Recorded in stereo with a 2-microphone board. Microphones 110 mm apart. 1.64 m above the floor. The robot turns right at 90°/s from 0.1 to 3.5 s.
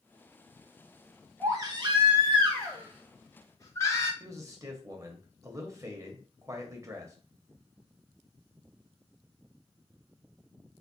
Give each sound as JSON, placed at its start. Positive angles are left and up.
{"t": 1.4, "sound": "a baby crying", "azimuth_deg": -155, "distance_m": 1.3}
{"t": 4.2, "sound": "a man speaking", "side_deg": -30, "distance_m": 1.1}